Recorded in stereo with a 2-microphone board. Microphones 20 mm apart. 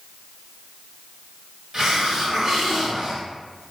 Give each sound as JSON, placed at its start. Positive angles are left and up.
{"t": 1.7, "sound": "a hiss", "side_deg": -35, "distance_m": 1.4}